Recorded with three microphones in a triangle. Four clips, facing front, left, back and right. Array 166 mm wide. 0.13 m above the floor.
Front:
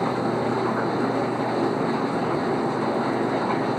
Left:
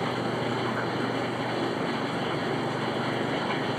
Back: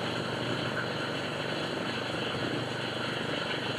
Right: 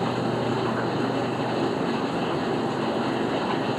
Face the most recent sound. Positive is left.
turn(degrees=-30)